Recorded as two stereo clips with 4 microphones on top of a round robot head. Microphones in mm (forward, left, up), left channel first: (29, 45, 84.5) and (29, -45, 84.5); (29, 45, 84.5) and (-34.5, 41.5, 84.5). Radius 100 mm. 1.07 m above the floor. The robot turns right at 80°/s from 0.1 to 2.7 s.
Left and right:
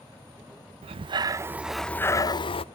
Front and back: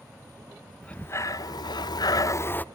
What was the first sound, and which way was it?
Breathing, 75° right.